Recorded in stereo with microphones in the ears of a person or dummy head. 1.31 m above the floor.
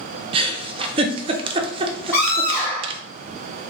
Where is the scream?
5° left (ahead or behind), 1.6 m.